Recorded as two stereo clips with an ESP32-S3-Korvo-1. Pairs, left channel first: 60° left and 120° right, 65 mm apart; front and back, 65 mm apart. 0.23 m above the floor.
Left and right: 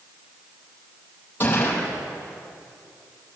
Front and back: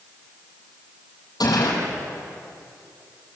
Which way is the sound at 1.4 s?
Straight ahead.